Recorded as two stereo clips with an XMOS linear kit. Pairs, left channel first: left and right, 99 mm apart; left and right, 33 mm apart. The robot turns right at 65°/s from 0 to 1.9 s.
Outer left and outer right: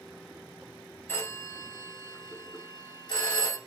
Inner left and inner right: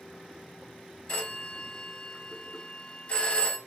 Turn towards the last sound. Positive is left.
turn(degrees=40)  # may be behind; listen again after turning